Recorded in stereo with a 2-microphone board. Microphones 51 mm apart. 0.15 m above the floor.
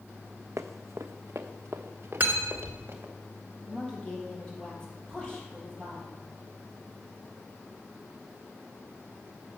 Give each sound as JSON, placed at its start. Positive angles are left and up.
{"t": 0.6, "sound": "running footsteps", "side_deg": -85, "distance_m": 0.6}
{"t": 2.2, "sound": "cutlery clinking", "side_deg": -40, "distance_m": 1.2}
{"t": 3.7, "sound": "a woman speaking", "side_deg": 15, "distance_m": 4.0}